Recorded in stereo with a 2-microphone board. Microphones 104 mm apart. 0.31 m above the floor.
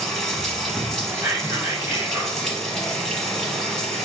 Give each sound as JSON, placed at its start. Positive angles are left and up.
{"t": 0.0, "sound": "running water", "side_deg": 10, "distance_m": 1.0}
{"t": 1.1, "sound": "whispering", "side_deg": -25, "distance_m": 1.4}